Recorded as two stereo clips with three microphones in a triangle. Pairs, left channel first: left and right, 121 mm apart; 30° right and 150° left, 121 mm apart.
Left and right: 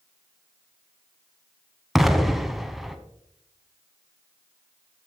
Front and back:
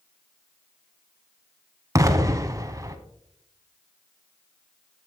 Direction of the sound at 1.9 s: 175° right.